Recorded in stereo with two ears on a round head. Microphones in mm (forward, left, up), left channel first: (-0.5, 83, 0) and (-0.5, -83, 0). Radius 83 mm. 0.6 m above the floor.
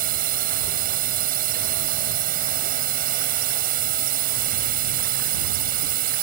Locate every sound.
0.0 s a drone: 50° right (ahead or behind)